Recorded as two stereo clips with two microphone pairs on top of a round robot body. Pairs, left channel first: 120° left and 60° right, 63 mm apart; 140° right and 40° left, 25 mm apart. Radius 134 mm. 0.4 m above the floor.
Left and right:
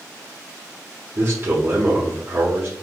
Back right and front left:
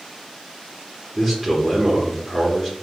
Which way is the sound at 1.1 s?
20° right.